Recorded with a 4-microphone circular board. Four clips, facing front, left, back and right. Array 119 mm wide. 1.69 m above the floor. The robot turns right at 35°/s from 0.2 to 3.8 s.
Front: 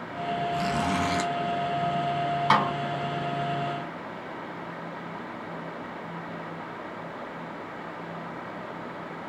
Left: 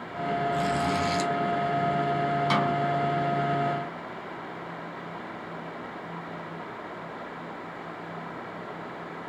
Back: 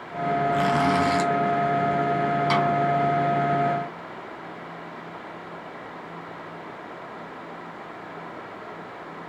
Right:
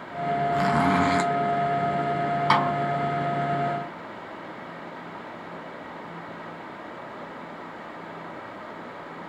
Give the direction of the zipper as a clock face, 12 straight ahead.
4 o'clock.